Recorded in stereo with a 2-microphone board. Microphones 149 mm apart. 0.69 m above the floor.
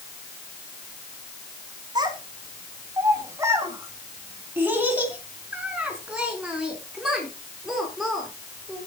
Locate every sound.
1.9 s a child speaking: 30° right (ahead or behind), 3.5 m; by 8.9 s centre (ahead or behind), 6.5 m